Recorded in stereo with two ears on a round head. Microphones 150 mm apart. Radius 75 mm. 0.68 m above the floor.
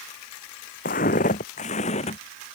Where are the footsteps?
55° left (ahead or behind); by 2.2 s 40° left (ahead or behind).